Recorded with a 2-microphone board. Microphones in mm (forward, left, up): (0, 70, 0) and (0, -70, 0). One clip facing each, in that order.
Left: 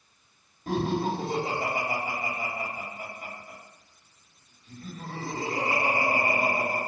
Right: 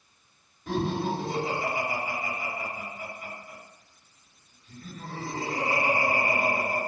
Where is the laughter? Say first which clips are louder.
Left 1 dB; 40° left (ahead or behind), 1.3 m.